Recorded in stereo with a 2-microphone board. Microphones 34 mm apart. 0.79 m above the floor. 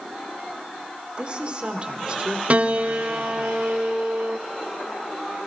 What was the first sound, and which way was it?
A woman speaking, 35° right (ahead or behind).